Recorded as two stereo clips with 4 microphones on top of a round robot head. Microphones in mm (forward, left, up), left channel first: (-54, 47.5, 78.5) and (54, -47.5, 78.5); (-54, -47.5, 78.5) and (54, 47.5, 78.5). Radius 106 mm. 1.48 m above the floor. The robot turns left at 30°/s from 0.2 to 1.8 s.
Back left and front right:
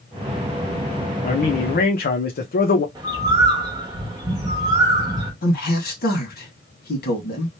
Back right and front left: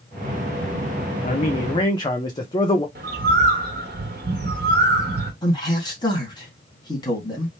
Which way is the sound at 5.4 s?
155° left.